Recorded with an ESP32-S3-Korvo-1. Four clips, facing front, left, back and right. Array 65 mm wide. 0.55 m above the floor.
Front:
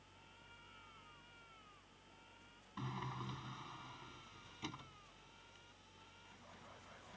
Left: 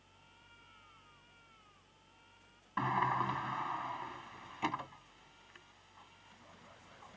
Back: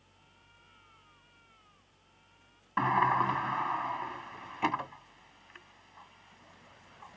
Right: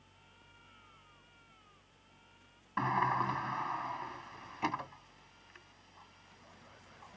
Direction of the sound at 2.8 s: 175° right.